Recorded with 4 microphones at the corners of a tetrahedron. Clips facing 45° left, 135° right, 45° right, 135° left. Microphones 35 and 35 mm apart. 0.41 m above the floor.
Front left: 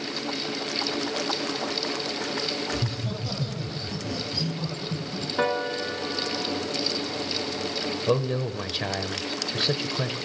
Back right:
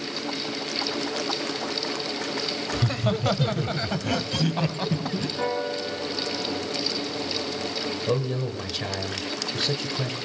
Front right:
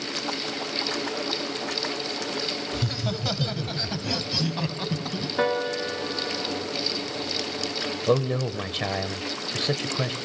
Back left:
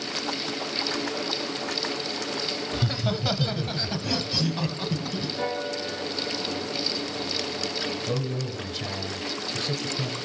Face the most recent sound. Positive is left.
turn(degrees=-30)